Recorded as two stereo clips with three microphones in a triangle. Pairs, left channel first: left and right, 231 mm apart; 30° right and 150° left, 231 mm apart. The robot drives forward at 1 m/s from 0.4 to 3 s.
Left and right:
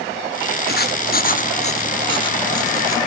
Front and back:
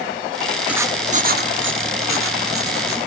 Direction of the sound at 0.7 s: 65° left.